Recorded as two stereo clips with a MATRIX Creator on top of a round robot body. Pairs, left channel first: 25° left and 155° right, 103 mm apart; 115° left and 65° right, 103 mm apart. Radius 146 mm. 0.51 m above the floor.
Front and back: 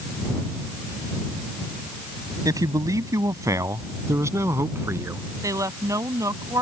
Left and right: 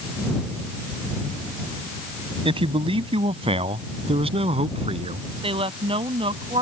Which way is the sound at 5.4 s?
100° right.